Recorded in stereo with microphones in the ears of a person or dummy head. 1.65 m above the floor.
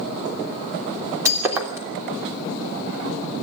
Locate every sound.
1.2 s breaking glass: 20° right (ahead or behind), 3 m